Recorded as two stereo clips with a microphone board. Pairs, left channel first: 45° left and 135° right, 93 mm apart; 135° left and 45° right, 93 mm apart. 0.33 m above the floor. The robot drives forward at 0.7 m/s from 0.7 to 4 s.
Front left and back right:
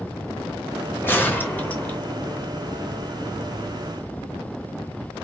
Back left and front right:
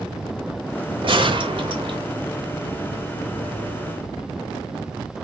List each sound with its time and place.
1.0 s a gunshot: 25° right, 2.5 m; by 2.0 s 30° right, 2.0 m